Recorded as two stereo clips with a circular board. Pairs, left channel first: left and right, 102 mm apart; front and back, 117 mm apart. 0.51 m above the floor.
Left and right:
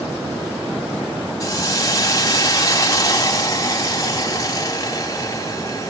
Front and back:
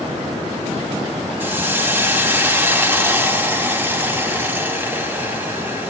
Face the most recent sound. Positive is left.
turn(degrees=115)